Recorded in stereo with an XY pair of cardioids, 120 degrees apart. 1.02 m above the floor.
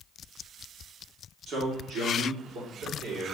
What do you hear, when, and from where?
1.5 s a man speaking: 55° right, 2 m; by 3.4 s 70° right, 3 m